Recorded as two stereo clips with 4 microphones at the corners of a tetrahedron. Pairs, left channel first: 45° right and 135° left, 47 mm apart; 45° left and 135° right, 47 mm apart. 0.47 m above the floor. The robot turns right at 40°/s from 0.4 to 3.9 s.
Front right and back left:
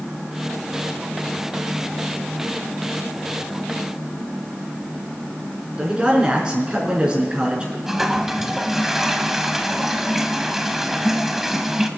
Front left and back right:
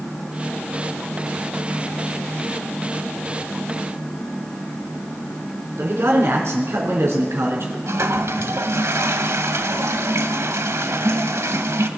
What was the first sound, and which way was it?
A man speaking, 155° right.